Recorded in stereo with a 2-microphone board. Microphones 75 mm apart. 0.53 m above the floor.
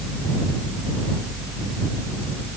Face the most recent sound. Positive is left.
No sound to turn to.